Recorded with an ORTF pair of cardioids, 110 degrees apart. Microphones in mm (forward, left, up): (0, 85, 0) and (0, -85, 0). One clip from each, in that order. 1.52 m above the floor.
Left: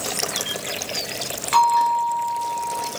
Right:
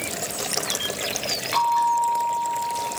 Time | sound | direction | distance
1.5 | a bell | 20° left | 6.5 m